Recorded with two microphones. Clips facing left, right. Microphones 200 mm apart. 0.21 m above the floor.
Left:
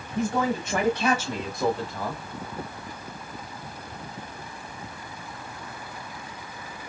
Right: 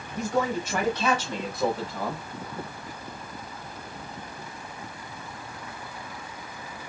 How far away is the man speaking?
About 1.2 m.